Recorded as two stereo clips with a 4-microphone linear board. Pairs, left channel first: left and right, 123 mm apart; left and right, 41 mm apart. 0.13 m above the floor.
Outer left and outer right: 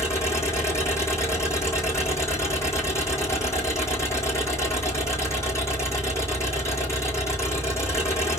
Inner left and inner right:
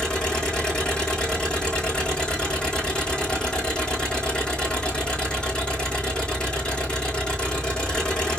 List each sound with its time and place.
0.0 s an engine running: 20° left (ahead or behind), 2.5 m